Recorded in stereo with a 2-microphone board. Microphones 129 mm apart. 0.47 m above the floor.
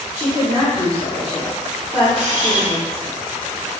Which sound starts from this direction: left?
A woman speaking, at 0.1 s.